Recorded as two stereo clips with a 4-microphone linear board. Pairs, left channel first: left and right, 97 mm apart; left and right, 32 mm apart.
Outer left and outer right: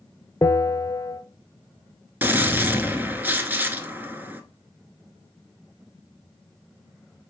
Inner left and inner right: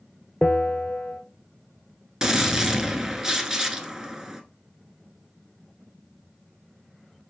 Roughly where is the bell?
Left.